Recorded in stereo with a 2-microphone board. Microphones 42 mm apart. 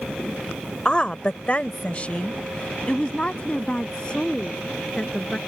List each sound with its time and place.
0.8 s a woman speaking: 20° left (ahead or behind); by 5.4 s 30° left (ahead or behind)